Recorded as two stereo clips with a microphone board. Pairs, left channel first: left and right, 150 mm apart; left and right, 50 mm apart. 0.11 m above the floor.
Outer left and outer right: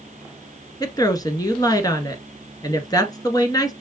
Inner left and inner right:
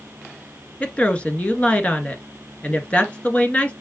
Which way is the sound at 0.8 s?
25° left (ahead or behind).